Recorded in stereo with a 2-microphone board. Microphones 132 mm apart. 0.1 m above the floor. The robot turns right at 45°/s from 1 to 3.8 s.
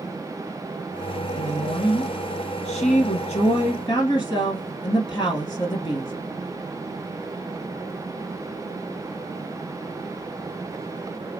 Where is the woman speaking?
25° left, 2 m; by 6.1 s 135° left, 2 m.